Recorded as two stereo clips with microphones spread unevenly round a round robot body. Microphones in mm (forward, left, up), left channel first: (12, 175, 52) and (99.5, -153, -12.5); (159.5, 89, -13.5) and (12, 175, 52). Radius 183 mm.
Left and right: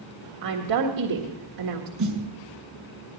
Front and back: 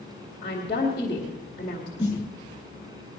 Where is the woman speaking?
90° right, 1.6 m.